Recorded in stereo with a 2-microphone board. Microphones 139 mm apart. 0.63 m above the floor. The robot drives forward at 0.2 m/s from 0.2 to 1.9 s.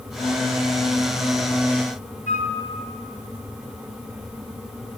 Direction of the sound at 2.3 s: 70° left (ahead or behind).